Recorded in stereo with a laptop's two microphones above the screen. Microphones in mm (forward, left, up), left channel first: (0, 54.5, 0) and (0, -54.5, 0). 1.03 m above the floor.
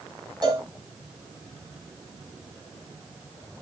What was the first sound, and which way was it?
A cowbell, 40° right (ahead or behind).